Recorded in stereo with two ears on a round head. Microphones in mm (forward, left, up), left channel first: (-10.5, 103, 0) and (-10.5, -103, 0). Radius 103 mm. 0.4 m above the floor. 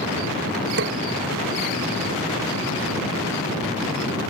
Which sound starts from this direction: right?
A snare drum, at 0.8 s.